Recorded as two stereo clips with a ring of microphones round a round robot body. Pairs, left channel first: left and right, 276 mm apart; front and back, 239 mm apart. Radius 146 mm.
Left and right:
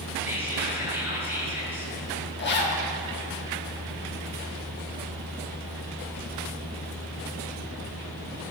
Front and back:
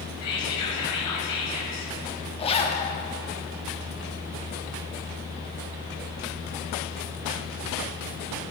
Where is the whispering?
10° right, 4 m.